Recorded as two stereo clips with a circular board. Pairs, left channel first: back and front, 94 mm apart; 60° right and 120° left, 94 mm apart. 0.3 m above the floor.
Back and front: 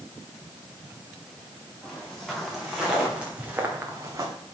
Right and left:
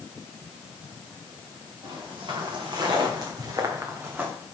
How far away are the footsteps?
About 3 m.